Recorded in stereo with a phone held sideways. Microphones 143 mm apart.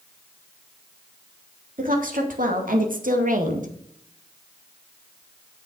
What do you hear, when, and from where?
1.8 s a woman speaking: 70° right (ahead or behind), 3 m; by 3.7 s 65° right (ahead or behind), 1.6 m